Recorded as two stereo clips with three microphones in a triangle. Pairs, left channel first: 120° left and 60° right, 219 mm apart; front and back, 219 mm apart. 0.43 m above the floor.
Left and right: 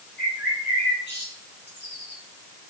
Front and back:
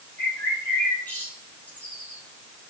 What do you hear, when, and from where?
0.2 s a bird: 80° left, 3.5 m